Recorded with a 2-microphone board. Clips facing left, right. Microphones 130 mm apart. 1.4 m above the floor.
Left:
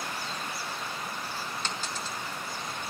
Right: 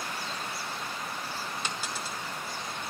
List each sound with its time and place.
1.6 s a dropped coin: 10° right (ahead or behind), 1.1 m